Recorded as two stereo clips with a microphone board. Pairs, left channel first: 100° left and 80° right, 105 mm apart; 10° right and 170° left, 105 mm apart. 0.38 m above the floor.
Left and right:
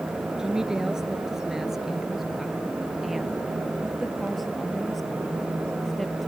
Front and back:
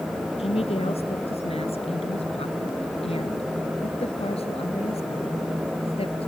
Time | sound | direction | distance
0.4 | a woman speaking | 5° left | ?